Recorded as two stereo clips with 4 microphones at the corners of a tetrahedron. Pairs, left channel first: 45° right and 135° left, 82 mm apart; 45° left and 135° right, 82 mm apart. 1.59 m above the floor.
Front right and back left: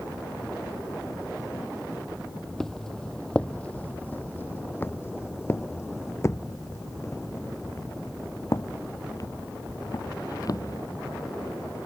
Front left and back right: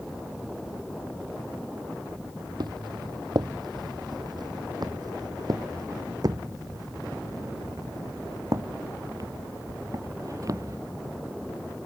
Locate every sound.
2.6 s footsteps: 130° right; by 10.8 s 90° right